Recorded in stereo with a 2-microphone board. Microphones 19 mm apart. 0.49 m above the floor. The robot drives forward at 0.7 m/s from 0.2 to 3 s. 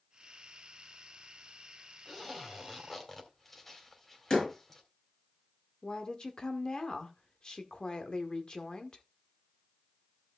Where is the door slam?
40° left (ahead or behind), 7 m.